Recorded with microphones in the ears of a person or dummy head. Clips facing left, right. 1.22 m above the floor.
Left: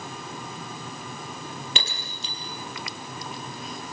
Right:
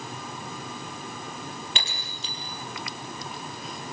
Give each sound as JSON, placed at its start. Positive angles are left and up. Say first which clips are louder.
{"t": 1.8, "sound": "breaking glass", "louder": "left 2 dB", "side_deg": 75, "distance_m": 4.0}